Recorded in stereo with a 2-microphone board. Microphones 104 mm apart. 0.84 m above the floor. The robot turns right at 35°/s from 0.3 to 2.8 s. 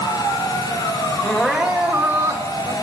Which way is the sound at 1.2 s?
170° left.